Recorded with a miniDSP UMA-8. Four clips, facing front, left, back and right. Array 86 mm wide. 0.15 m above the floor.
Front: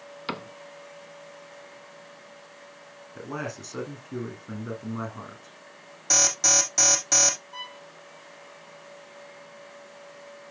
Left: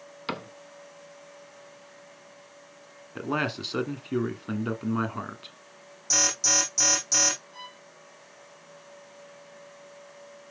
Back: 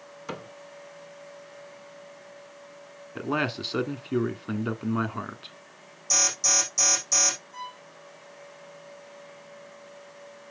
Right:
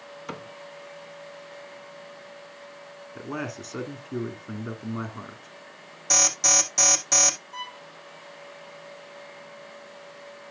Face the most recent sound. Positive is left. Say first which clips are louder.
# right 7 dB, back 2 dB
turn(degrees=-35)